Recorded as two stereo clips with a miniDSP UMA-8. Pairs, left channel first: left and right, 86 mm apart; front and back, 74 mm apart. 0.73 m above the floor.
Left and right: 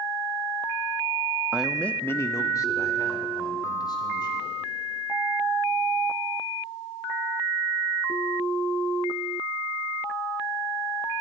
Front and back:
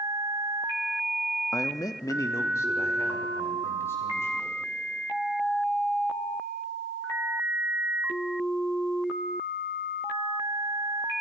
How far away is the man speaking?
About 0.7 m.